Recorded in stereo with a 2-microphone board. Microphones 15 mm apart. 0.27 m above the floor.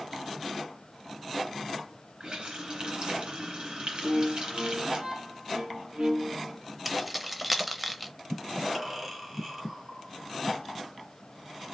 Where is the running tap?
55° right (ahead or behind), 1.9 m.